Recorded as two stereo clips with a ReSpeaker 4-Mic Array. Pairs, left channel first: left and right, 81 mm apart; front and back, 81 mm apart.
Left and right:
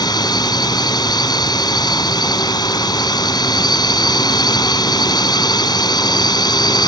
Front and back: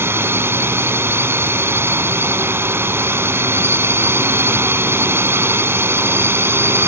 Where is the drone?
120° left.